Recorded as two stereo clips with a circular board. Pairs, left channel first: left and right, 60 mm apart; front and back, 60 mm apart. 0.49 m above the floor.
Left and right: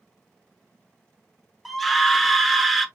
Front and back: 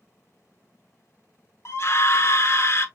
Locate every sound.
1.6 s a scream: straight ahead, 0.9 m